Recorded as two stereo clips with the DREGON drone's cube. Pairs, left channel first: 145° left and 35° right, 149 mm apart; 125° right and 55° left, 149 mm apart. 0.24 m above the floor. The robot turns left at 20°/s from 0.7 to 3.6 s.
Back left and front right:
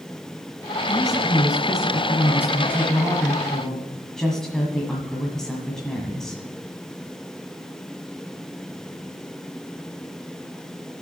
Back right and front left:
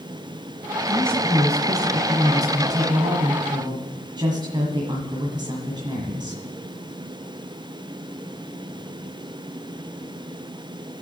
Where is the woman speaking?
115° left, 1.5 m; by 6.4 s 60° left, 1.5 m.